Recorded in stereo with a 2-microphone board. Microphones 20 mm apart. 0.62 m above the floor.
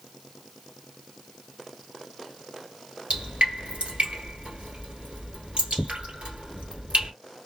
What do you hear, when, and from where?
3.1 s dripping: 75° right (ahead or behind), 1.5 m